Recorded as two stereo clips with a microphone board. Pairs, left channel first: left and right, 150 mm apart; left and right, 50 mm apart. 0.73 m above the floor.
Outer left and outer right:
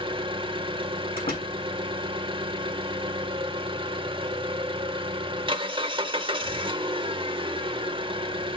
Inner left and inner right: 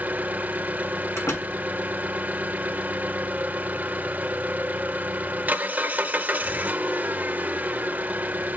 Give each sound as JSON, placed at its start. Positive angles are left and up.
{"t": 0.0, "sound": "an engine running", "side_deg": -35, "distance_m": 1.0}
{"t": 1.2, "sound": "a door slam", "side_deg": 75, "distance_m": 6.0}